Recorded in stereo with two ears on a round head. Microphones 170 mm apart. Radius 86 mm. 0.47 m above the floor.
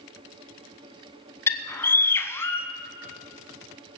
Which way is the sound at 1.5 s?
15° left (ahead or behind).